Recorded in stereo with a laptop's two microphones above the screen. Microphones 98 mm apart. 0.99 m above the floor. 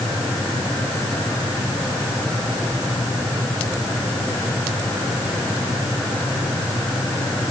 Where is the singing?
No singing in this recording.